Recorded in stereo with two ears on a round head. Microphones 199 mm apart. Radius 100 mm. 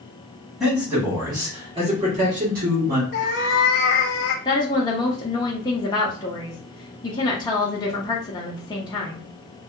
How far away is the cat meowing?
About 0.6 m.